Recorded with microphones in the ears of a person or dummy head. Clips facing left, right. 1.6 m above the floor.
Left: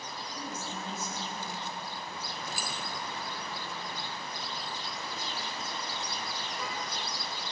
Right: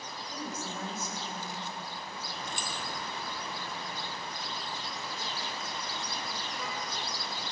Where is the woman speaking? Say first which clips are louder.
Right 2 dB; 40° right (ahead or behind), 8.5 m.